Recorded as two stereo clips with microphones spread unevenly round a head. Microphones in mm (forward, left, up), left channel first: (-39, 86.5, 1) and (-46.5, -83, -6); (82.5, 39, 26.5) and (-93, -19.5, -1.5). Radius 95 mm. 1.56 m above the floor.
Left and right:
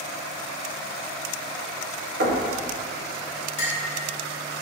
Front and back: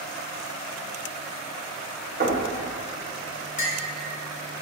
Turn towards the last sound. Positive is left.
turn(degrees=45)